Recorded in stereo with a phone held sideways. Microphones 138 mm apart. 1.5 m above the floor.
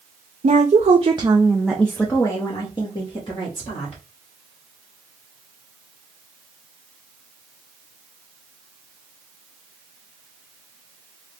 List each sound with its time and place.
0.4 s a woman speaking: 75° right (ahead or behind), 0.7 m; by 4.0 s 45° left (ahead or behind), 1.8 m